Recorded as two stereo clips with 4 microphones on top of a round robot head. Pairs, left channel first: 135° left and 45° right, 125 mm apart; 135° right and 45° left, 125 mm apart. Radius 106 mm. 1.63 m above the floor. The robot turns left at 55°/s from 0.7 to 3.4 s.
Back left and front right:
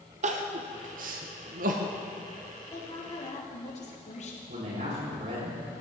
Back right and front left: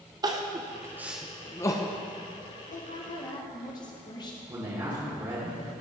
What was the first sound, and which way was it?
Crying, 15° right.